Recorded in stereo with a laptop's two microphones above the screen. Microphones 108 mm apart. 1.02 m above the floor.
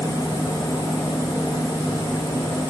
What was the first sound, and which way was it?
A machine running, 35° left (ahead or behind).